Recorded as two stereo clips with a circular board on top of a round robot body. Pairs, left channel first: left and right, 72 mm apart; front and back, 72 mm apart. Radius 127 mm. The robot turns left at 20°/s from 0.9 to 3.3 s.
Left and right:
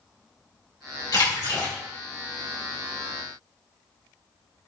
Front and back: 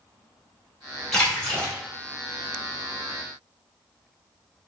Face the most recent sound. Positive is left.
turn(degrees=40)